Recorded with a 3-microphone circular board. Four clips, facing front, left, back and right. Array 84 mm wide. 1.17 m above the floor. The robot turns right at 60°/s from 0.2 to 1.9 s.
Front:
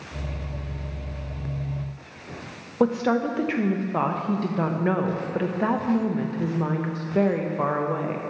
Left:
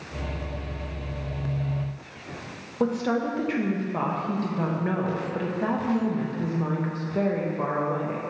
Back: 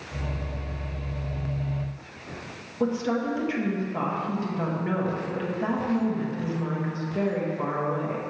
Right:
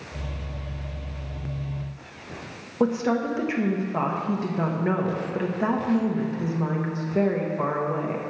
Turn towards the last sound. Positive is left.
turn(degrees=-20)